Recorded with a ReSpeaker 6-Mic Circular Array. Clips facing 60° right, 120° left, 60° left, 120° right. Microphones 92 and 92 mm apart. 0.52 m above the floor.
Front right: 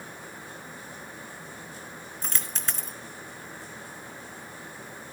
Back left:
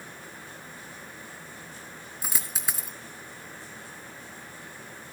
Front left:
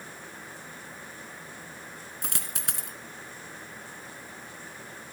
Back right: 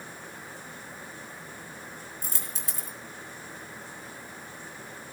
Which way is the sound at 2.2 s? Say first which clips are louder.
Even, front left 2 dB; 40° left.